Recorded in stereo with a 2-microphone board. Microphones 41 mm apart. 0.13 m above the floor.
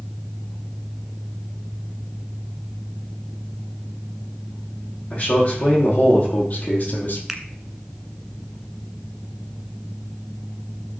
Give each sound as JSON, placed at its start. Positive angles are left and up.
{"t": 5.1, "sound": "a man speaking", "side_deg": 35, "distance_m": 6.0}
{"t": 7.3, "sound": "a finger snap", "side_deg": -10, "distance_m": 1.2}